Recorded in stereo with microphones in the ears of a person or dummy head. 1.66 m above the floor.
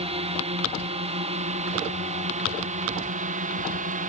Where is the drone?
35° right (ahead or behind); by 4.1 s 45° right (ahead or behind).